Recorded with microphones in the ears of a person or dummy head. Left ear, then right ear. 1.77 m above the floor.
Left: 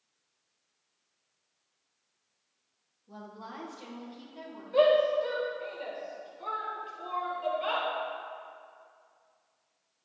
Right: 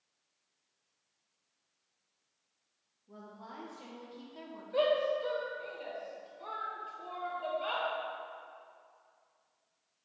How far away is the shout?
About 1.4 m.